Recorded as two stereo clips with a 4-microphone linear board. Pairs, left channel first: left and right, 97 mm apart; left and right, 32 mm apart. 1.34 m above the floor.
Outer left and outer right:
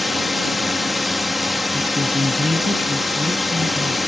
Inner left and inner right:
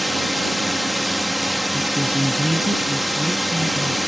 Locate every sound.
0.0 s a drone: centre (ahead or behind)
1.7 s a woman speaking: 75° right (ahead or behind)